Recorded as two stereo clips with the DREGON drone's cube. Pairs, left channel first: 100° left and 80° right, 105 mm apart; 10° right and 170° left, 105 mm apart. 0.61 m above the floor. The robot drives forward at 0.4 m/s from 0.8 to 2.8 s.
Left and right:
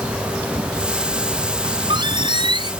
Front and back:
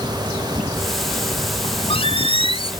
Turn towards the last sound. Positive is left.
turn(degrees=-40)